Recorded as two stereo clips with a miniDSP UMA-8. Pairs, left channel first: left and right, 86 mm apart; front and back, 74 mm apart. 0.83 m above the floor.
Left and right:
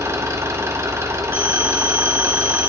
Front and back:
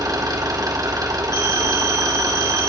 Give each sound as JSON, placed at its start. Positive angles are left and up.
{"t": 0.0, "sound": "an engine running", "azimuth_deg": -145, "distance_m": 1.7}
{"t": 1.3, "sound": "a phone ringing", "azimuth_deg": -20, "distance_m": 3.0}